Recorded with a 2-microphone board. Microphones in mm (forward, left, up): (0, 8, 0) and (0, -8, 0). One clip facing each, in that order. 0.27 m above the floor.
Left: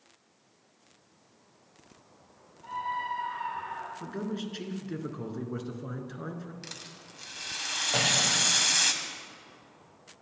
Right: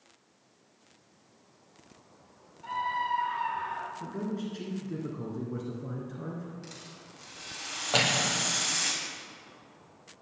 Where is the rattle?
40° left (ahead or behind), 2 m.